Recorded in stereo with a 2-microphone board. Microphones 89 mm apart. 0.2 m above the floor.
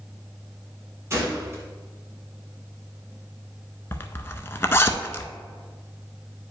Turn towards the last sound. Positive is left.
turn(degrees=30)  # may be behind; listen again after turning